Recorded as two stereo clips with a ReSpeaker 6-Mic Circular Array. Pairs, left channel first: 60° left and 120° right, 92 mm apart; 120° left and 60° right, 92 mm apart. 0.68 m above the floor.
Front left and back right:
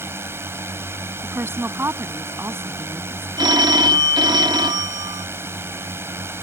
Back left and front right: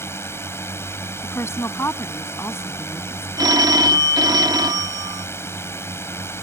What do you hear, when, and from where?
0.0 s a drone: straight behind
1.2 s a woman speaking: straight behind
3.4 s a phone ringing: 95° right